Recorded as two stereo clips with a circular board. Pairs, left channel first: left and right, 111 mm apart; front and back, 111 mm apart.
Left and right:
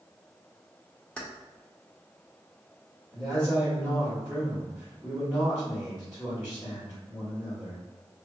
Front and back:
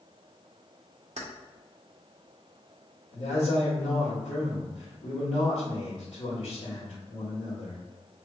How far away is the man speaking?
About 1.5 m.